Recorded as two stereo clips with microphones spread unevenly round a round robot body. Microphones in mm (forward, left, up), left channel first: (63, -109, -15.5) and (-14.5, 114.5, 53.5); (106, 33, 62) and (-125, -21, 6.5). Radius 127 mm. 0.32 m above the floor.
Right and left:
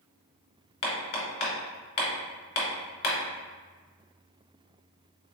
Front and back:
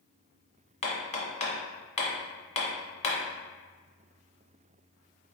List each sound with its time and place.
0.8 s hammering: 50° right, 1.2 m